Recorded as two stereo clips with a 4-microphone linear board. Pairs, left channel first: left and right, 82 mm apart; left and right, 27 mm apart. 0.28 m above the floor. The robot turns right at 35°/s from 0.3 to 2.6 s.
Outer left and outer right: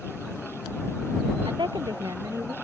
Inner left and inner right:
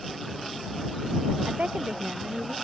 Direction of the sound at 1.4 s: 70° right.